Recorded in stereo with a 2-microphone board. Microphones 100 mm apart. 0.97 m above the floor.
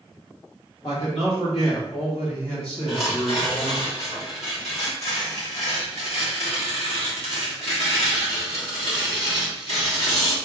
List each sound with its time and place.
0.8 s a man speaking: 65° left (ahead or behind), 1.9 m
2.9 s tearing paper: 75° left (ahead or behind), 1.5 m